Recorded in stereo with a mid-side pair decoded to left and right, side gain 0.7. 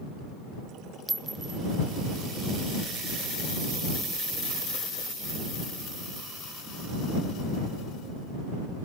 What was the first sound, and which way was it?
A clink, 10° right.